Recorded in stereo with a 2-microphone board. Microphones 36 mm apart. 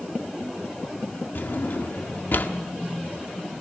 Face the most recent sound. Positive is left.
turn(degrees=65)  # may be behind; listen again after turning